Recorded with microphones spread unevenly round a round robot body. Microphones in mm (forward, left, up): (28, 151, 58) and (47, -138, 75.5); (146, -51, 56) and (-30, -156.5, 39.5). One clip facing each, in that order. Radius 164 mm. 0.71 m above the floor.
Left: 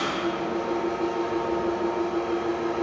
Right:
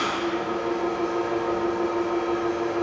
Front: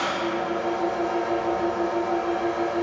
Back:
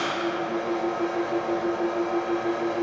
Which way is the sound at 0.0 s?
95° left.